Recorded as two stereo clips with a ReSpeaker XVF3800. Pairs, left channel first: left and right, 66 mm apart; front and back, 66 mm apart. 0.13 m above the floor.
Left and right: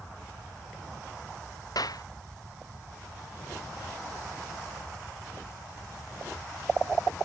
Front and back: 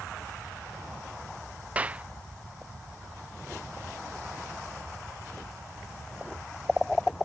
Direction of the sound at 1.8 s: 110° left.